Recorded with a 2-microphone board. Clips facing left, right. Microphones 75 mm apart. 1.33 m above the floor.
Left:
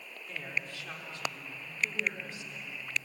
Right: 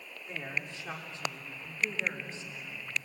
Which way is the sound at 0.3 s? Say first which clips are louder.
Even; 20° right (ahead or behind).